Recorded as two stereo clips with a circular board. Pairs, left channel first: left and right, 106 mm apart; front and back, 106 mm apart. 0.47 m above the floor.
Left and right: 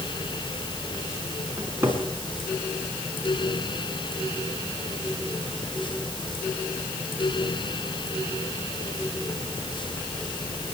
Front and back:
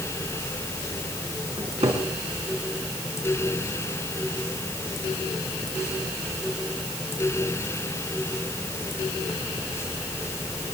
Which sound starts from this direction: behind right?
A cupboard door, at 1.6 s.